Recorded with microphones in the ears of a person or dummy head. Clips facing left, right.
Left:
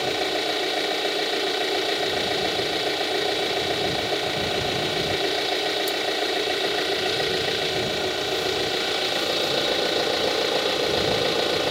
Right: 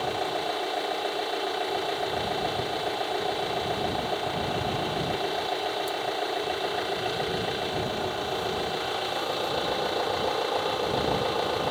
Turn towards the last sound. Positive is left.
turn(degrees=35)  # may be behind; listen again after turning